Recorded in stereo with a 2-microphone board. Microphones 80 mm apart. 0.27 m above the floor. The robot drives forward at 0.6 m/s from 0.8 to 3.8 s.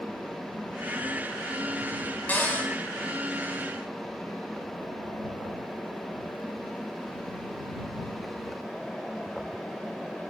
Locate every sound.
2.3 s a cupboard door: 20° left (ahead or behind), 1.1 m; by 2.7 s 25° left (ahead or behind), 0.9 m